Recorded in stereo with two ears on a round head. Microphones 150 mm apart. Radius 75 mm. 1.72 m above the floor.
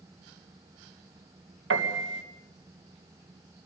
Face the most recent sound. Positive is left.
turn(degrees=-80)